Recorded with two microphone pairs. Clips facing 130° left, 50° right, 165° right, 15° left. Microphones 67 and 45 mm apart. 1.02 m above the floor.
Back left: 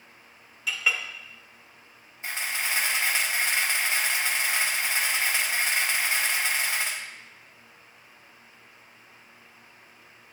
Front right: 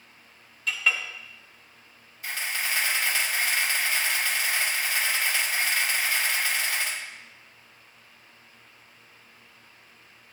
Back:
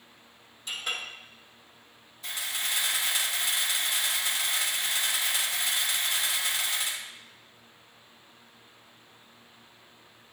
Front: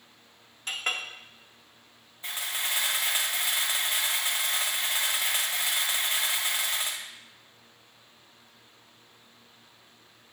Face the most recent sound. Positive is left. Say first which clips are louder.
# even, front 1 dB
turn(degrees=70)